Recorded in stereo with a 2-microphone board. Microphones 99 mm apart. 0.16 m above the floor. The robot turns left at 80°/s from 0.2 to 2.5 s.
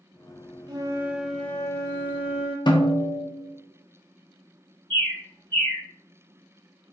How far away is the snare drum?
About 0.7 m.